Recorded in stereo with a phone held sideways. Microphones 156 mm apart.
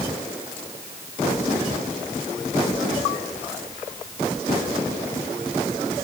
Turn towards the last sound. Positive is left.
No sound to turn to.